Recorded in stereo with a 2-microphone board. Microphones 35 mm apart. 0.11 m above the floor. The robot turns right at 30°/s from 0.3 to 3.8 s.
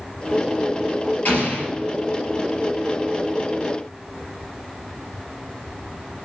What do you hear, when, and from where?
1.2 s an explosion: 55° left (ahead or behind), 2.5 m; by 1.7 s 60° left (ahead or behind), 2.5 m